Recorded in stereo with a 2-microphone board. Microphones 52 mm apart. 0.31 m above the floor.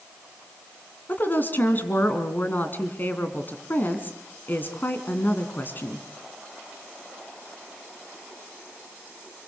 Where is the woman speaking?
40° left (ahead or behind), 2.5 m.